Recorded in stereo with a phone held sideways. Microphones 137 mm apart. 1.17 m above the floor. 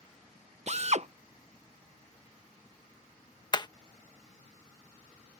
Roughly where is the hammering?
Left.